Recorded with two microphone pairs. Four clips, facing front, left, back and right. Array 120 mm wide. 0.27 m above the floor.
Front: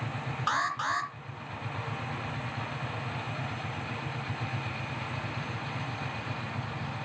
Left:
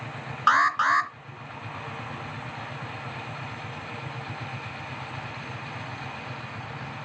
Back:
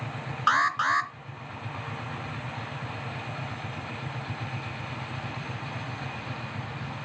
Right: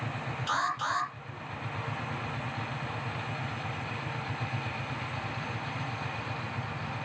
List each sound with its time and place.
0.5 s an alarm: 110° left, 2 m